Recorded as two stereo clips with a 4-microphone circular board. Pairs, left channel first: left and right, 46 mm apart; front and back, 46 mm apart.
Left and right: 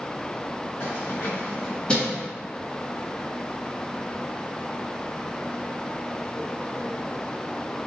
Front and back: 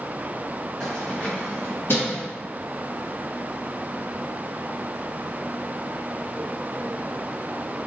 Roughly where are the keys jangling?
Left.